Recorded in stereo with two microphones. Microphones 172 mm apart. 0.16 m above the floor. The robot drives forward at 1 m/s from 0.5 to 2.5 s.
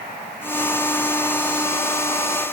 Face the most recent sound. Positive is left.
No sound to turn to.